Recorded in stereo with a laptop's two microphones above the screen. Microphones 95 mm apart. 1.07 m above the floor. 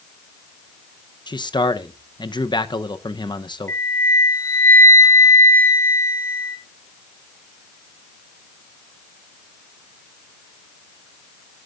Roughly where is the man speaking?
Left.